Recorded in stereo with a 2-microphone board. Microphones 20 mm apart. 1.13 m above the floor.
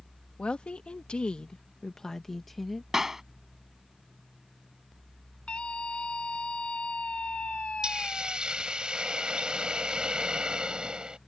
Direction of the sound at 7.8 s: 55° right (ahead or behind).